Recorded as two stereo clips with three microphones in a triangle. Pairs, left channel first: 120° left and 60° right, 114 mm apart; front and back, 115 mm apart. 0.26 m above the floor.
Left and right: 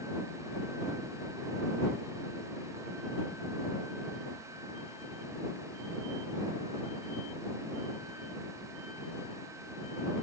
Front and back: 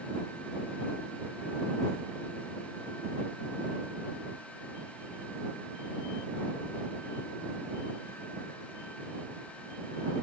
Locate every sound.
Only background noise.